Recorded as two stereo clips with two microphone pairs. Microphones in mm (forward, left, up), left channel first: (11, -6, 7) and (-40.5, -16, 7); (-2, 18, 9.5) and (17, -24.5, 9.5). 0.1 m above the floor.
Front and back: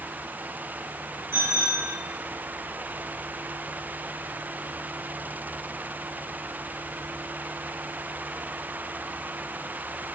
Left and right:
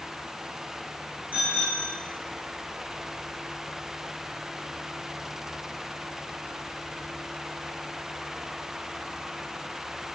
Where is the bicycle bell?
130° right, 5.5 m.